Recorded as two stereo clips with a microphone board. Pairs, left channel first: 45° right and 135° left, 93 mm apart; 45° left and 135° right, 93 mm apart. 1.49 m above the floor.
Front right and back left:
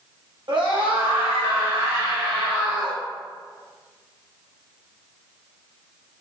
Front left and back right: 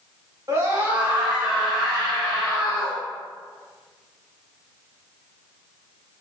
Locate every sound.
0.5 s a scream: 165° left, 1.7 m; by 3.0 s 120° left, 3.5 m